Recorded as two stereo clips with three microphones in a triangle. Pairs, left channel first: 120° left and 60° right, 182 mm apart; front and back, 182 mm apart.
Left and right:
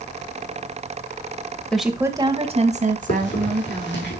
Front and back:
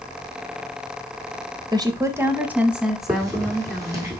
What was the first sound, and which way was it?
A woman speaking, 160° right.